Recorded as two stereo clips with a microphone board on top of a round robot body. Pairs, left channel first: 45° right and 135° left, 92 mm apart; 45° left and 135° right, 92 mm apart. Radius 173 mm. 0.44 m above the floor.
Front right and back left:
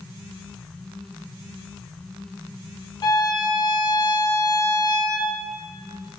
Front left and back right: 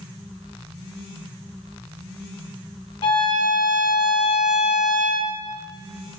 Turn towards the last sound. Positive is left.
turn(degrees=10)